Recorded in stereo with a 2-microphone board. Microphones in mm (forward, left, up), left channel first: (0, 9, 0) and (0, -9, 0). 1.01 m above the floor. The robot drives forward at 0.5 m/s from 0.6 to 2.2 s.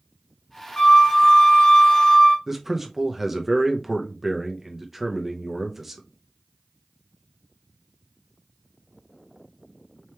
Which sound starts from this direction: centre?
A man speaking, at 2.5 s.